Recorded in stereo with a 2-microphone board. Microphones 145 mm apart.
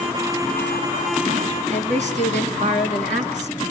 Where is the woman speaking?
55° right (ahead or behind), 2 m.